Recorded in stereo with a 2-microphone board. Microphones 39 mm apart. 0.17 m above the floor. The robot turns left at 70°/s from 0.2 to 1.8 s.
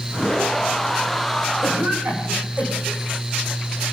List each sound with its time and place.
1.6 s a cough: 55° right (ahead or behind), 9.5 m; by 3.0 s 45° right (ahead or behind), 9.5 m